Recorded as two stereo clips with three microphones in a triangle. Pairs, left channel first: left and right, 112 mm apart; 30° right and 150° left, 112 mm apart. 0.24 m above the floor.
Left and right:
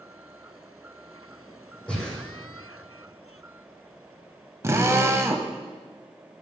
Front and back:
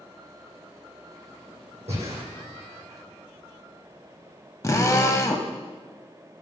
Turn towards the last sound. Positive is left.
turn(degrees=-55)